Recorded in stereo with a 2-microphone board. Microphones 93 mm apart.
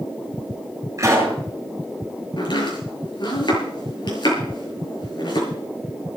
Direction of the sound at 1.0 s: 30° right (ahead or behind).